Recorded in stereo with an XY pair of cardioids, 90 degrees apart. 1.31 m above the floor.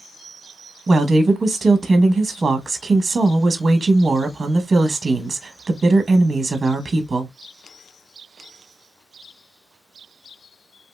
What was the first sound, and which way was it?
A woman speaking, 35° right.